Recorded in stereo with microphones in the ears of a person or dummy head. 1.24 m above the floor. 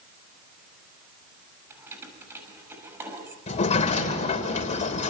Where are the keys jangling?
10° right (ahead or behind), 6 m.